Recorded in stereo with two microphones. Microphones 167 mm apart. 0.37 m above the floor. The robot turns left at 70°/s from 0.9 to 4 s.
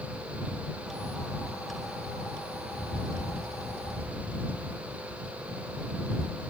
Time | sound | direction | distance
2.7 | a bird | 80° left | ?